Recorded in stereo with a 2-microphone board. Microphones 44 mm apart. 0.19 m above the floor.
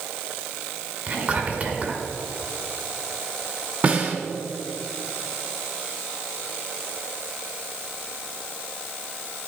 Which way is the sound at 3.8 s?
35° right (ahead or behind).